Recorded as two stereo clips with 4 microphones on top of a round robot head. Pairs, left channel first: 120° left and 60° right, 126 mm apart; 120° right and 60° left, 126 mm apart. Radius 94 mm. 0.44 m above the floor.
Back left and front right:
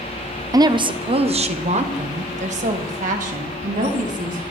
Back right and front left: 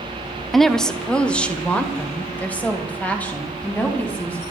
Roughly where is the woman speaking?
Ahead right.